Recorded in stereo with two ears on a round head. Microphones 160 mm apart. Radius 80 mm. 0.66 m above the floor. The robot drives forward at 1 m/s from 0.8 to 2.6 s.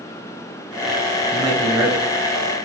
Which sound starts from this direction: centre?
A man speaking, at 1.3 s.